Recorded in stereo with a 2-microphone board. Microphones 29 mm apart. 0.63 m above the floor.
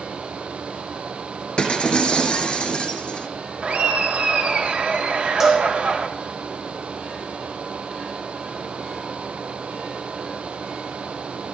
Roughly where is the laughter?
Right.